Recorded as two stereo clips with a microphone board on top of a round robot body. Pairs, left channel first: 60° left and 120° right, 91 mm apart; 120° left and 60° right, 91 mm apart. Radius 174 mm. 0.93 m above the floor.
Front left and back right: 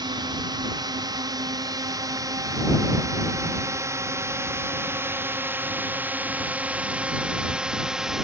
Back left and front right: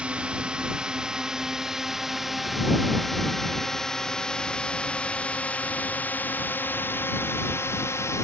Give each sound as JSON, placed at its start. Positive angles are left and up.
{"t": 0.0, "sound": "a drone", "azimuth_deg": -135}